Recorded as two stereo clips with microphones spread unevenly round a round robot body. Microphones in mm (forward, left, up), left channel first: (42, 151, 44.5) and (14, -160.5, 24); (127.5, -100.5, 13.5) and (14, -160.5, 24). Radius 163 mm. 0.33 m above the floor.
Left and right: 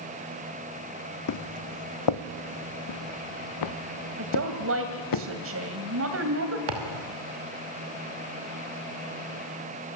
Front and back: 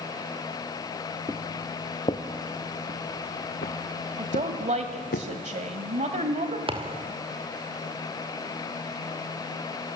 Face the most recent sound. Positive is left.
turn(degrees=-105)